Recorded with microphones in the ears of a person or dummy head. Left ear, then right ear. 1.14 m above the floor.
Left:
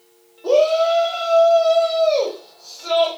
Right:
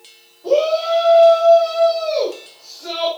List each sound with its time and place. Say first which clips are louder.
0.4 s a shout: left 1 dB; 50° left (ahead or behind), 4 m; by 3.1 s 40° left (ahead or behind), 6 m